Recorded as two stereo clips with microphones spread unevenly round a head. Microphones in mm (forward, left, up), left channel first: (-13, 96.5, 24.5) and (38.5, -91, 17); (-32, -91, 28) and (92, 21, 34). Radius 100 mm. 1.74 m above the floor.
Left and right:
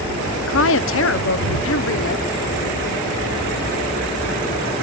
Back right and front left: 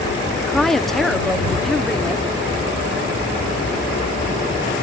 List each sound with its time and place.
0.4 s a woman speaking: 135° left